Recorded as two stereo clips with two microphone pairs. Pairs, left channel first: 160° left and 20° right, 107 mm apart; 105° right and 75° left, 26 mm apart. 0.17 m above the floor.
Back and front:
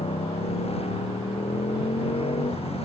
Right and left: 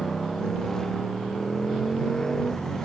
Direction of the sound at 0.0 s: 175° right.